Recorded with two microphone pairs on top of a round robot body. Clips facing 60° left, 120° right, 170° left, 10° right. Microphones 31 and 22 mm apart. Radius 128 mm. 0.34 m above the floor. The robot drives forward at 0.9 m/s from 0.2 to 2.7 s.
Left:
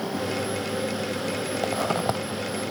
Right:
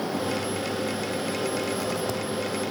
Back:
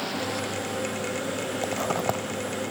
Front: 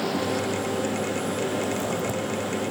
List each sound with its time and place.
1.6 s a zipper: 100° left, 1.1 m; by 2.2 s 120° left, 1.3 m